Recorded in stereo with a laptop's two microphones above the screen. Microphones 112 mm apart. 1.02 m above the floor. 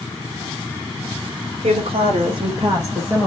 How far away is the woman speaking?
About 1.4 m.